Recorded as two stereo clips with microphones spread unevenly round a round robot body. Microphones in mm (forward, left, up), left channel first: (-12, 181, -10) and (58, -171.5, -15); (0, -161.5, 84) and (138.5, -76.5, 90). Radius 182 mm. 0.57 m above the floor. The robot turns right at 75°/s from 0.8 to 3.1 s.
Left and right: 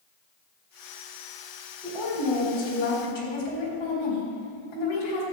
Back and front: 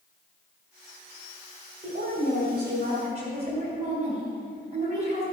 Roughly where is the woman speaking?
Ahead.